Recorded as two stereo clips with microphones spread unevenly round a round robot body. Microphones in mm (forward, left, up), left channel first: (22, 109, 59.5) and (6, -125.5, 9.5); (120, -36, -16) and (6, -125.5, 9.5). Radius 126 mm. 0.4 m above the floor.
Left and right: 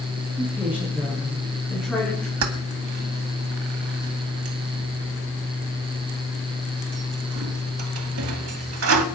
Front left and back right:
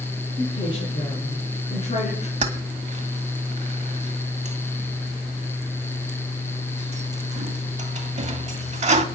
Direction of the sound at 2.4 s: 100° right.